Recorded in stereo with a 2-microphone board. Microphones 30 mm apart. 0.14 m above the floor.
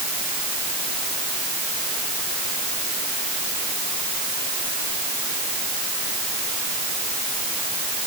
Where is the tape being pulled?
I don't hear tape being pulled.